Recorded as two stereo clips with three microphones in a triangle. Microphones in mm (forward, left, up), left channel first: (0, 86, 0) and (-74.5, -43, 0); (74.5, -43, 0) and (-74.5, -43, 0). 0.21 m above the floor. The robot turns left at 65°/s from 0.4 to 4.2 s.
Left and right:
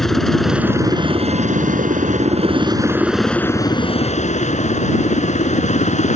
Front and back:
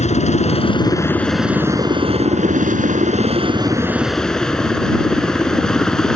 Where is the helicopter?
30° right; by 6.2 s 85° left.